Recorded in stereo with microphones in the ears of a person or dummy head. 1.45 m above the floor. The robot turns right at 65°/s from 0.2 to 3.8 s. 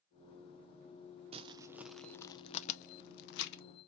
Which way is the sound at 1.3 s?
35° right (ahead or behind).